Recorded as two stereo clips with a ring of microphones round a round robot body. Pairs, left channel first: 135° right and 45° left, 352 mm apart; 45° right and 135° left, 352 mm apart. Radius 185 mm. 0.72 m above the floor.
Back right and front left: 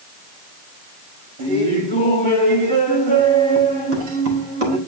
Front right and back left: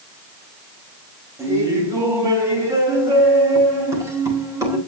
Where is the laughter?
55° left, 5.5 m.